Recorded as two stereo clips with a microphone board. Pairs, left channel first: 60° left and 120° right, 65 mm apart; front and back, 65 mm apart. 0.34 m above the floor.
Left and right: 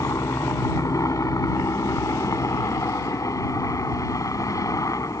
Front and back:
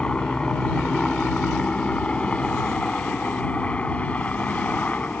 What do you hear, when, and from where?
0.0 s a helicopter: 75° left; by 5.2 s 65° left